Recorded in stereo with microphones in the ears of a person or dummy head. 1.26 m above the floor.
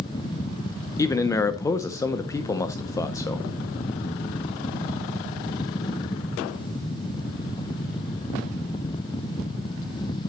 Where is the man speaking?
15° left (ahead or behind), 0.5 m.